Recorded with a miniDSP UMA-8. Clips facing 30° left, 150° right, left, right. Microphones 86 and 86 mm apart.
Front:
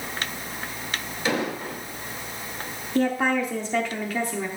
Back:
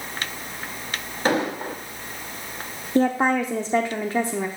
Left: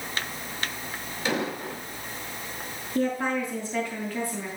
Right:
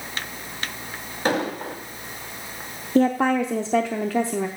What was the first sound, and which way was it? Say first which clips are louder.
An explosion: back 4 dB, right 5 dB; 120° right.